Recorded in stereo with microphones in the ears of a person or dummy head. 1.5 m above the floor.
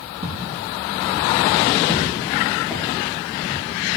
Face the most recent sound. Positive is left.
turn(degrees=5)  # may be behind; listen again after turning